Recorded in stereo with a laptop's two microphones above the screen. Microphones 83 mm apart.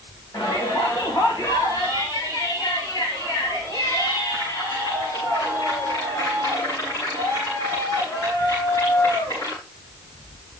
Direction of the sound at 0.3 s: 50° left (ahead or behind).